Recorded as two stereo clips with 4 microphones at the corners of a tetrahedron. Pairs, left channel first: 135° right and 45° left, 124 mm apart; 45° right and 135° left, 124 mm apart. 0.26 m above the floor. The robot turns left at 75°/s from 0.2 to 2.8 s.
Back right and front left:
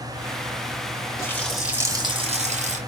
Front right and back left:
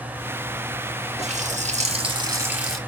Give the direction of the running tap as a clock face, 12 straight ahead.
7 o'clock.